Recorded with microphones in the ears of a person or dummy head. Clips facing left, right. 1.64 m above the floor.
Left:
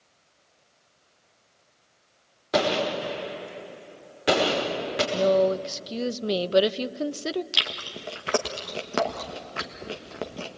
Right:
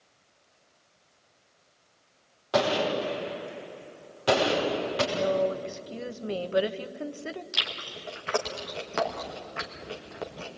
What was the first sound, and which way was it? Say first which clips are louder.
A gunshot: left 1 dB; 25° left (ahead or behind).